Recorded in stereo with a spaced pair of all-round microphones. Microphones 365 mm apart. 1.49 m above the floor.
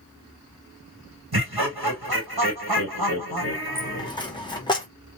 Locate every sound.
1.3 s laughter: 80° right, 1.0 m
3.8 s a dropped coin: 10° left (ahead or behind), 0.7 m